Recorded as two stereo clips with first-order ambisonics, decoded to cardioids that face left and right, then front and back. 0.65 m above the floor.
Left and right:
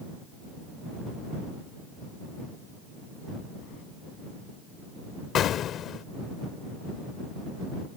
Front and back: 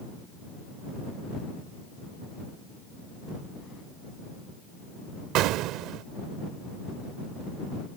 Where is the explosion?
145° left.